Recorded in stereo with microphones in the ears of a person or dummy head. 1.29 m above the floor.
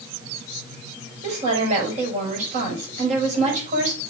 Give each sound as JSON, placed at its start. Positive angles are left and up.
{"t": 1.2, "sound": "a woman speaking", "side_deg": -45, "distance_m": 5.5}